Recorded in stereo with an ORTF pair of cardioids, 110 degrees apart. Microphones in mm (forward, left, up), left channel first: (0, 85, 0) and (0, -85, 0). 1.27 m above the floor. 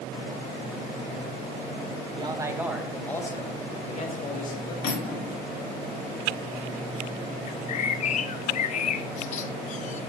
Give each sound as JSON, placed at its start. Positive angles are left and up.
{"t": 2.2, "sound": "a man speaking", "azimuth_deg": -30, "distance_m": 1.4}
{"t": 4.8, "sound": "cutlery clinking", "azimuth_deg": 65, "distance_m": 1.8}
{"t": 7.5, "sound": "a bird", "azimuth_deg": 45, "distance_m": 0.5}